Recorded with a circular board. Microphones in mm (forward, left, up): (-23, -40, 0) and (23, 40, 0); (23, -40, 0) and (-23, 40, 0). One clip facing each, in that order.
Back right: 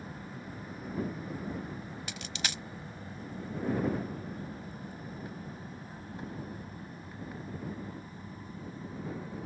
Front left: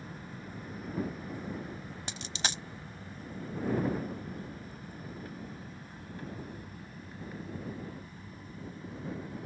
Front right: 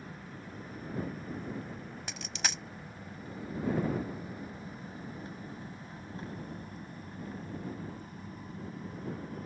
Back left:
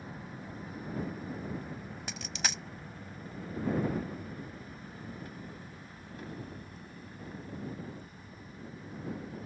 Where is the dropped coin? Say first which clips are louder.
Front left 4 dB, even; 30° left.